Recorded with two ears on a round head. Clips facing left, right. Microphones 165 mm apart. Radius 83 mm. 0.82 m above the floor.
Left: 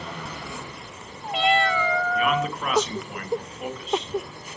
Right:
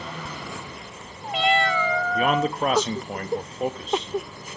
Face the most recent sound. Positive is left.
turn(degrees=-30)  # may be behind; listen again after turning